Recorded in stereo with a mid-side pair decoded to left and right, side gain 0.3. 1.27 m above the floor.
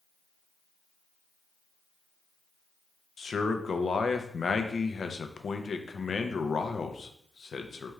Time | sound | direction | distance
3.2 | a man speaking | 50° left | 0.6 m